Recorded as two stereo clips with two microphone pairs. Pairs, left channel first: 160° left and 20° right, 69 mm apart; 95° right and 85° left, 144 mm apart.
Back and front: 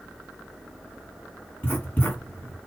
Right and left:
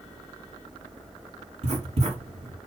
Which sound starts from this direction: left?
Writing, at 1.6 s.